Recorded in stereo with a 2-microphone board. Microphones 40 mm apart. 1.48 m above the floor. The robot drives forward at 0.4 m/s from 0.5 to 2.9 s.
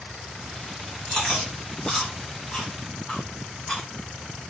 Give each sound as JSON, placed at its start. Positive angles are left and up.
{"t": 1.1, "sound": "chewing", "side_deg": 10, "distance_m": 1.7}